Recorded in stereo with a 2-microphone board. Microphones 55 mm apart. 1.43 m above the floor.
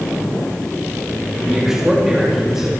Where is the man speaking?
5° right (ahead or behind), 3.5 m.